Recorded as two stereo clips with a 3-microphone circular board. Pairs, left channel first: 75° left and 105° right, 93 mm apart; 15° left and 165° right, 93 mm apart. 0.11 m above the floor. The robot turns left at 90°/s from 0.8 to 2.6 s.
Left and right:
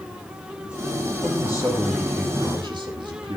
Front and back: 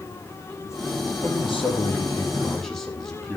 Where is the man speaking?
50° left, 4 m; by 3.4 s 75° right, 4 m.